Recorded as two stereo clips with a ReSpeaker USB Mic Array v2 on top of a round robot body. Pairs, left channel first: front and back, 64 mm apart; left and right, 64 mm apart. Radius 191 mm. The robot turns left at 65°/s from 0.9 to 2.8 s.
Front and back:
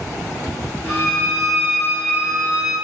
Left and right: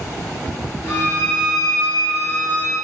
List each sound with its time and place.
0.9 s a violin: 15° left, 1.0 m; by 2.8 s 105° right, 1.0 m